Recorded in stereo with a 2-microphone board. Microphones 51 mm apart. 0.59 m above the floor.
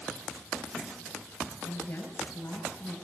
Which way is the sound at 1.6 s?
35° left (ahead or behind).